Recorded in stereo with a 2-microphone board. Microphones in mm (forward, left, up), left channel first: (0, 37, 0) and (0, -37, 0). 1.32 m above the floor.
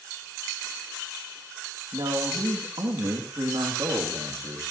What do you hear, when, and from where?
1.9 s a man speaking: 80° right, 2 m; by 4.6 s 65° right (ahead or behind), 2.5 m